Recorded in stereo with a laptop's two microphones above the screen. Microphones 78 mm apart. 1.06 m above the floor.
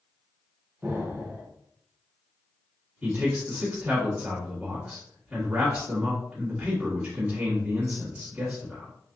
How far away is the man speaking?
About 1.5 m.